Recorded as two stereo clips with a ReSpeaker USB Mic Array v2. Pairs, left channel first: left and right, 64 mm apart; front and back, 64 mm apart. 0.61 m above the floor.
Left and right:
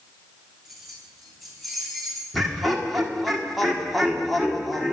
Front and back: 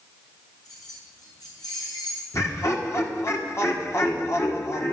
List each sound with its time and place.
0.7 s keys jangling: straight ahead, 4.5 m
2.3 s laughter: straight ahead, 1.7 m